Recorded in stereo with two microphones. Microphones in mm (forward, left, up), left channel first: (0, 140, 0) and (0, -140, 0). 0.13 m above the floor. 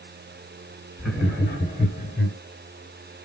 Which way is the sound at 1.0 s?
5° left (ahead or behind).